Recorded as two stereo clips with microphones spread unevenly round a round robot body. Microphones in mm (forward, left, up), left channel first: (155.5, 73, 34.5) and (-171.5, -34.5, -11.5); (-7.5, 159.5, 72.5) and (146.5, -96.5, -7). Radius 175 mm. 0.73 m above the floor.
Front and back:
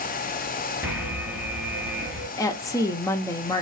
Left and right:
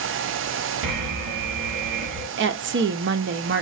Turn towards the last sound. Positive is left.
turn(degrees=-65)